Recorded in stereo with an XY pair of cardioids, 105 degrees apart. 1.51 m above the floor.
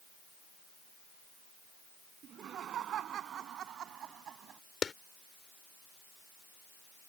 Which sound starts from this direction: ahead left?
A clap, at 4.8 s.